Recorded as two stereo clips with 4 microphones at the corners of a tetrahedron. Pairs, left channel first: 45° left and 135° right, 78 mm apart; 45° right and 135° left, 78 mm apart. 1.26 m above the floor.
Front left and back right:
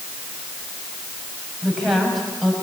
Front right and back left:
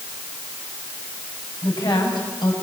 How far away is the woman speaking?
About 7.5 m.